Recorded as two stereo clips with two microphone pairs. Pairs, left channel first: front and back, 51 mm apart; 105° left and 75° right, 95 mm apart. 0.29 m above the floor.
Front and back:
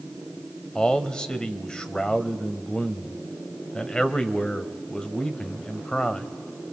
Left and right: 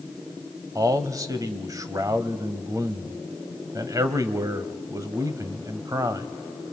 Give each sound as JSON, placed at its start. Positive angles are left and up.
{"t": 0.8, "sound": "a man speaking", "azimuth_deg": -60, "distance_m": 1.2}